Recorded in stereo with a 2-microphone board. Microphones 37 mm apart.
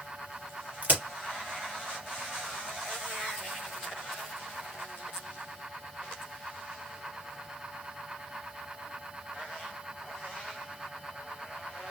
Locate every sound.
0.8 s a crack: 45° right (ahead or behind), 1.9 m